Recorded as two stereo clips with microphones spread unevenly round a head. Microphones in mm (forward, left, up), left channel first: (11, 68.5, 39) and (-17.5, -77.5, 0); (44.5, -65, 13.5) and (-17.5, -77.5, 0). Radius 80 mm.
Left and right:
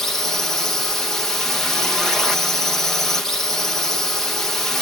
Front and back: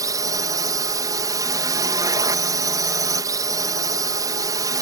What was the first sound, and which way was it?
A drone, 175° left.